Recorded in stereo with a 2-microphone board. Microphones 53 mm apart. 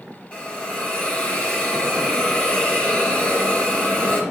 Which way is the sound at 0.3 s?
30° left (ahead or behind).